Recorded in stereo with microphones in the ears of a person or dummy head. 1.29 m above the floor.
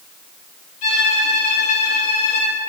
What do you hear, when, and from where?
0.8 s a violin: 50° left (ahead or behind), 3 m